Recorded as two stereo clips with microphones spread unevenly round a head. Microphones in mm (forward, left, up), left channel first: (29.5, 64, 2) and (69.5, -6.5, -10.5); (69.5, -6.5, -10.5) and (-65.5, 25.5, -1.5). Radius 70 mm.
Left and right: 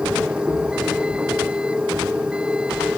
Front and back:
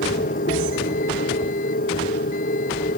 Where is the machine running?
20° left.